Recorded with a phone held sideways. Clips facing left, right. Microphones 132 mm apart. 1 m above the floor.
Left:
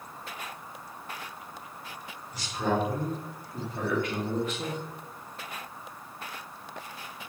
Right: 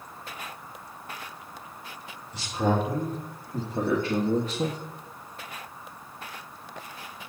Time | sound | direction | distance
2.3 | a man speaking | 25° right (ahead or behind) | 3.5 m